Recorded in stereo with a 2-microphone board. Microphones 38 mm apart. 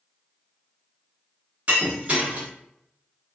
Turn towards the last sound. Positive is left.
turn(degrees=-35)  # may be behind; listen again after turning